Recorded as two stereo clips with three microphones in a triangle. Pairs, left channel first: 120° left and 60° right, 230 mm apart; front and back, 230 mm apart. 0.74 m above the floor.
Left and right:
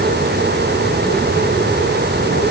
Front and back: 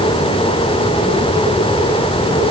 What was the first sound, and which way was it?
Only background noise.